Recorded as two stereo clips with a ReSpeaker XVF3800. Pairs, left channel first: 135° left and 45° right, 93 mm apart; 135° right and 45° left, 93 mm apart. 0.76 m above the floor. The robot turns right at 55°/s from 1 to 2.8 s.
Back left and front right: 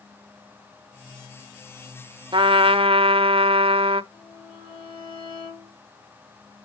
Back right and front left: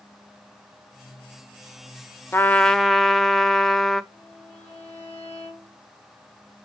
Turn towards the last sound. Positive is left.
turn(degrees=155)